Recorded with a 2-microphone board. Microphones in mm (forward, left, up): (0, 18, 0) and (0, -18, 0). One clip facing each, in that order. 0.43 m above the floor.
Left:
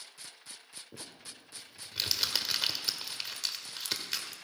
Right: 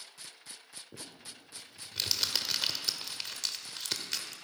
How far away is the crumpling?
About 0.9 m.